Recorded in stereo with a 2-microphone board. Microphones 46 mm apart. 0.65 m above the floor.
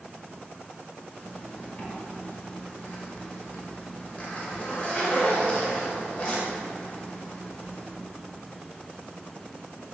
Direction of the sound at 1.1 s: 30° left (ahead or behind).